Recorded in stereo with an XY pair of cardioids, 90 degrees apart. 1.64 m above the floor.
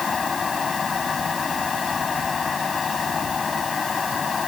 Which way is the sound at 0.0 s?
35° left.